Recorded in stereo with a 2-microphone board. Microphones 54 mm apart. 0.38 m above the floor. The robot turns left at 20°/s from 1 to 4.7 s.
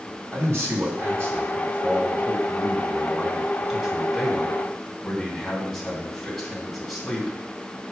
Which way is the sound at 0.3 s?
115° right.